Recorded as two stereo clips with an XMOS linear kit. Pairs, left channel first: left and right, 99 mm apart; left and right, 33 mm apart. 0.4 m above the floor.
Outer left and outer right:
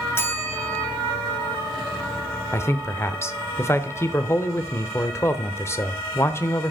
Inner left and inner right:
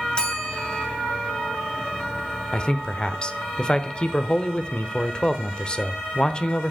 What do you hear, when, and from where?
0.1 s a bell: 25° left (ahead or behind), 2.5 m
2.5 s a man speaking: 25° left (ahead or behind), 0.9 m